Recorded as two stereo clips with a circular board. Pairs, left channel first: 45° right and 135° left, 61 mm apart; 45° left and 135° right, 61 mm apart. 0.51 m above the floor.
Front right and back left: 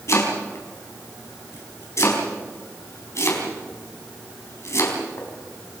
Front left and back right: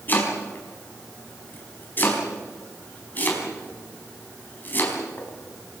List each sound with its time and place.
0.1 s chopping: 10° right, 4.5 m